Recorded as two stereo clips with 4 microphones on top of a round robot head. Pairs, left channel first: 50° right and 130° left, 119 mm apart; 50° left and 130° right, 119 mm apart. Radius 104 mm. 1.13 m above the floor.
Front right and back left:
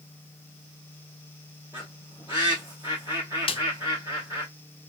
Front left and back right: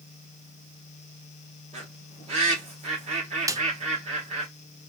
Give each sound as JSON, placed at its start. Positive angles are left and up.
{"t": 1.7, "sound": "a bird", "azimuth_deg": -160, "distance_m": 2.5}
{"t": 3.5, "sound": "a snare drum", "azimuth_deg": -75, "distance_m": 0.5}